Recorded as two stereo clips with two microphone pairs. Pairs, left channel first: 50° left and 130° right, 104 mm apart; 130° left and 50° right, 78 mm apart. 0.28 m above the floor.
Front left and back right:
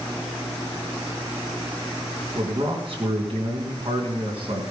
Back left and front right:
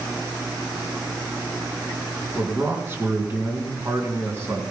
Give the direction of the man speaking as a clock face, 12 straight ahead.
4 o'clock.